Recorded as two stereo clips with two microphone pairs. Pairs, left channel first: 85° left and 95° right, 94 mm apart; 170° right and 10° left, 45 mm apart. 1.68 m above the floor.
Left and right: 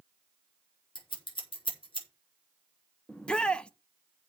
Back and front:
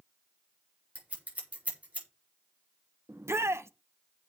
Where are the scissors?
65° left, 4.5 m.